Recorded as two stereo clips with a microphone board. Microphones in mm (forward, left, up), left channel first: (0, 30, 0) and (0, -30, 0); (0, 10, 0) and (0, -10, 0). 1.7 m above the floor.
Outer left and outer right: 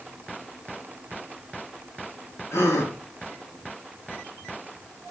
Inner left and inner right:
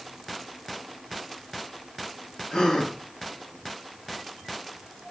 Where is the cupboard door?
I don't hear a cupboard door.